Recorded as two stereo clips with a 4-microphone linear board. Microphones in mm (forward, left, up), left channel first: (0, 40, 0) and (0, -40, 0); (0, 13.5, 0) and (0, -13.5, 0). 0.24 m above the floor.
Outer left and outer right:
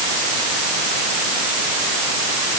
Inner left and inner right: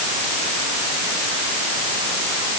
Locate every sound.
Only background noise.